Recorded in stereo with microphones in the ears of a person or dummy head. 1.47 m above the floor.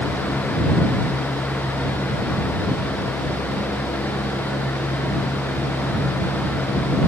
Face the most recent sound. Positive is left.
No sound to turn to.